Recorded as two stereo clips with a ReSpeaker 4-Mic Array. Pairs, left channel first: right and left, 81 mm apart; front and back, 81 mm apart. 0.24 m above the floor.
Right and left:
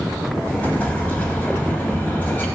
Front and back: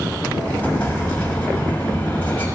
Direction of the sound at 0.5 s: 45° right.